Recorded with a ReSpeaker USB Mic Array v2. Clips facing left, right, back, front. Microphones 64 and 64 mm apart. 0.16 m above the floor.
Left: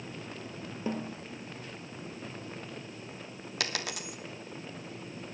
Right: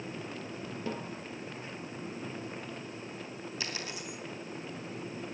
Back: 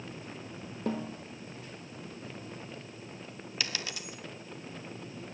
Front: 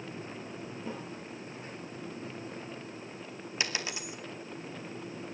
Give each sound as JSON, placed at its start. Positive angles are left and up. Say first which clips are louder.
{"t": 0.9, "sound": "a snare drum", "louder": "left 4 dB, back 9 dB", "azimuth_deg": 160, "distance_m": 4.5}
{"t": 3.6, "sound": "a dropped coin", "louder": "left 6 dB, front 2 dB", "azimuth_deg": 70, "distance_m": 2.0}